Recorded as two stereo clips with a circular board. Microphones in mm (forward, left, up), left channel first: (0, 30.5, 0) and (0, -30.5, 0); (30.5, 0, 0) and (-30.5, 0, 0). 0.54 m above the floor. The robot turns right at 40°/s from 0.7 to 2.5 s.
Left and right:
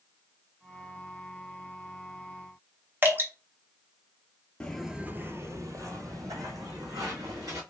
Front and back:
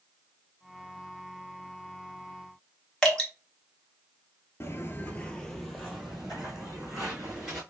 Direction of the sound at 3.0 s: 70° right.